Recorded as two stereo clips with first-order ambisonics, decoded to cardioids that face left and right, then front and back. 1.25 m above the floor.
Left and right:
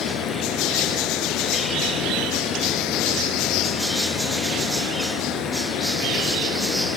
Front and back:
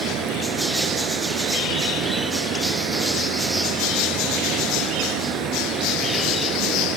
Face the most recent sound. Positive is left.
turn(degrees=135)